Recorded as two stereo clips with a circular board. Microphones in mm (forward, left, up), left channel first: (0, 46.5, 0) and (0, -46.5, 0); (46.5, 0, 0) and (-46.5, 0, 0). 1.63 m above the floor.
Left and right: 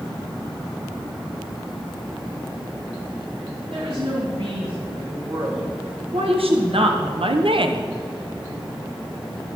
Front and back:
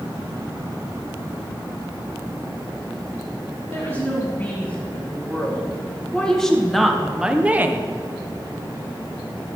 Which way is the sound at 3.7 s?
70° right.